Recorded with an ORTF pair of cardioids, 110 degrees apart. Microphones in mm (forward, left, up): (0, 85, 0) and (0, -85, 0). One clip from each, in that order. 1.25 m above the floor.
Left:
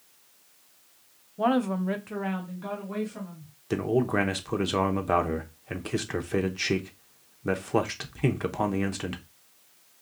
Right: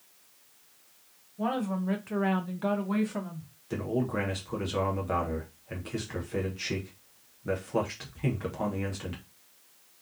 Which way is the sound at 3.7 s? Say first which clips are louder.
Left 6 dB; 40° left.